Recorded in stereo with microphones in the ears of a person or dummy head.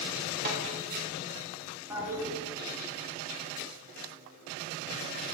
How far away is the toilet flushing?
About 1.6 m.